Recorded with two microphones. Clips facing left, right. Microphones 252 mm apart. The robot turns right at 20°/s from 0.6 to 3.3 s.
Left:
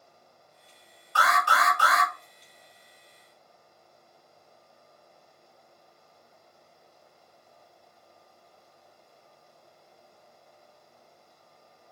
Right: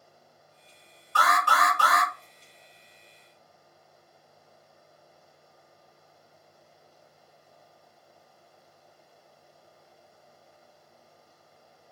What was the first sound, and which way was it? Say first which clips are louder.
An alarm: right 1 dB; 55° right (ahead or behind).